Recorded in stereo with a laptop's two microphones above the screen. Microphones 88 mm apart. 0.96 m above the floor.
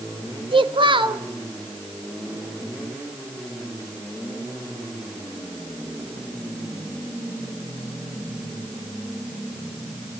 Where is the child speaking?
85° right, 1.6 m.